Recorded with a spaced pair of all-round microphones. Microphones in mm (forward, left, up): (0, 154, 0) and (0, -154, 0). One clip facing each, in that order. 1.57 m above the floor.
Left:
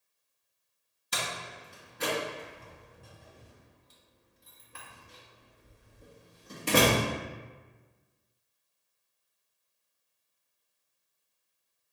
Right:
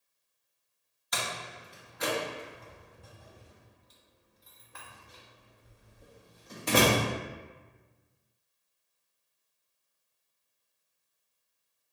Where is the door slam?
35° left (ahead or behind), 1.2 m.